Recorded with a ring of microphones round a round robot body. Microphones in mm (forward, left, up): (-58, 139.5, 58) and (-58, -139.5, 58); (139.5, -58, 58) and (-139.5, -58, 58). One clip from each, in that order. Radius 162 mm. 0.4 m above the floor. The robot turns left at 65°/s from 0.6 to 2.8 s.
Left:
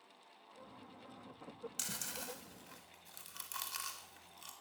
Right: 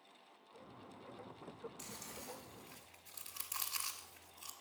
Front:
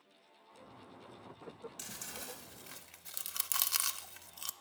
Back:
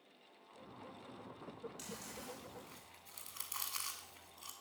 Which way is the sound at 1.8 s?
75° left.